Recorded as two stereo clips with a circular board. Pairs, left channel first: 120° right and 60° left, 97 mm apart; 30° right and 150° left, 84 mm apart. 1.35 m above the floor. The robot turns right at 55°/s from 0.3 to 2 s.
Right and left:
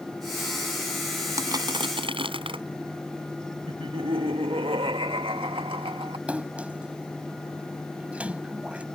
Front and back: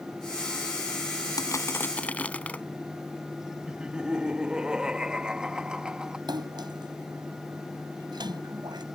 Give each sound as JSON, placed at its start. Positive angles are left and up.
{"t": 1.4, "sound": "crushing", "azimuth_deg": 10}
{"t": 3.7, "sound": "laughter", "azimuth_deg": 70}
{"t": 6.3, "sound": "a splash", "azimuth_deg": 135}